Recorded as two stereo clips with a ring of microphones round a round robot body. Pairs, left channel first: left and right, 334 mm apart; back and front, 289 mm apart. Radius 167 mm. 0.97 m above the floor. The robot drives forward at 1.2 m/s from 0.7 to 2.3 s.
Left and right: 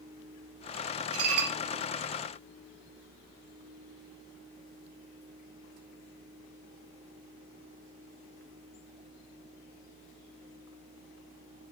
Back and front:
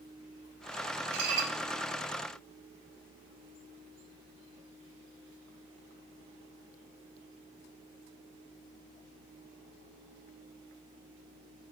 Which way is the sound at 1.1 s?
35° right.